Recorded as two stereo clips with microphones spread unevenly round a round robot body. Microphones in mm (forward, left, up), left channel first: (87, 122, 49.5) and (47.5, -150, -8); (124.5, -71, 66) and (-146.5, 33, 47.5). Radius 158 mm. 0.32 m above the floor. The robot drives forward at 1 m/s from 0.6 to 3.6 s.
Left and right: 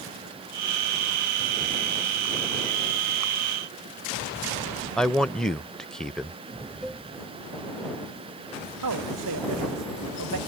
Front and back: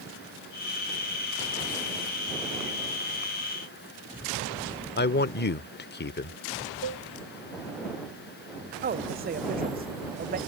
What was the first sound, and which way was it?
A man speaking, 25° right.